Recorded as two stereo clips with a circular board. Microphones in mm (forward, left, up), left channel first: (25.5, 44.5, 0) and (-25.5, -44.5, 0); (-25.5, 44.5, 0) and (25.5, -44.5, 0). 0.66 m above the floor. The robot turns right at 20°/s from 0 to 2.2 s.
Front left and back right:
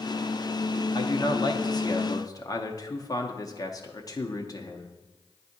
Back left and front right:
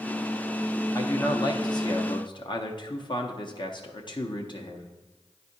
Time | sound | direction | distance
0.9 | a man speaking | 75° left | 0.7 m